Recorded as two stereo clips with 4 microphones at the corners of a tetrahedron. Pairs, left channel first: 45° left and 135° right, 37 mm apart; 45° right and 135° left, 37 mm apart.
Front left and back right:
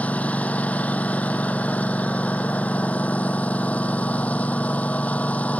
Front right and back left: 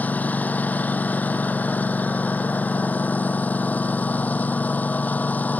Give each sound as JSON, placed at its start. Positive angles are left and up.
{"t": 0.0, "sound": "a lawn mower", "azimuth_deg": -5}